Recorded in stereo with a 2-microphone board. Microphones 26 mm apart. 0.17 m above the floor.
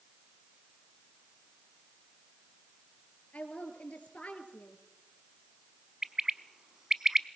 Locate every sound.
3.3 s a woman speaking: 65° left (ahead or behind), 4 m
6.0 s a bird: 20° right (ahead or behind), 0.7 m